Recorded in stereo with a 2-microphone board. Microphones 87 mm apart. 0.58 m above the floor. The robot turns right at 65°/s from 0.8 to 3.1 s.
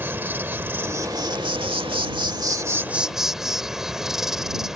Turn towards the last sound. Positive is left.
turn(degrees=-5)